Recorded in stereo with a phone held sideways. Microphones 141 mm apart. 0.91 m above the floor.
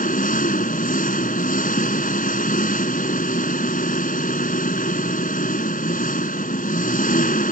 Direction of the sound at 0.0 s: 80° left.